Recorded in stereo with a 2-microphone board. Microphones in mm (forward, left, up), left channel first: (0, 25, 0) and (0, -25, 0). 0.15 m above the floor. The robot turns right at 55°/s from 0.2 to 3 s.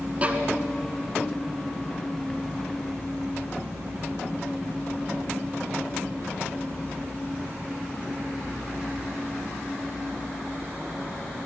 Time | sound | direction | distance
0.2 | a violin | 25° right (ahead or behind) | 1.8 m